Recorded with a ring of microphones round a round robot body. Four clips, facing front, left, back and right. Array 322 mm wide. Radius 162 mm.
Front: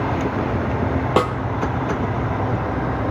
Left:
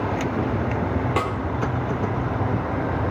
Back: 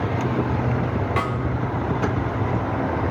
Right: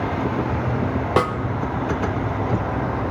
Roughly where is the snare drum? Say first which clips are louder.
Right 8 dB, front 9 dB; ahead right.